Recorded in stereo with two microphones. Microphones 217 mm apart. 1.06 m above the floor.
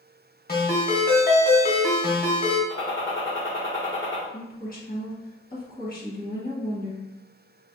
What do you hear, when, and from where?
0.5 s a ringtone: 45° left (ahead or behind), 1.1 m
2.7 s a gunshot: 60° left (ahead or behind), 1.3 m
4.3 s a woman speaking: 45° left (ahead or behind), 1.5 m